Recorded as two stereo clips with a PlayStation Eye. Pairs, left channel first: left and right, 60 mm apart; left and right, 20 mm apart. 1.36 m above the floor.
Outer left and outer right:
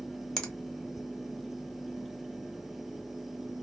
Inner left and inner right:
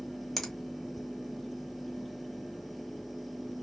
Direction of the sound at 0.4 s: 10° left (ahead or behind).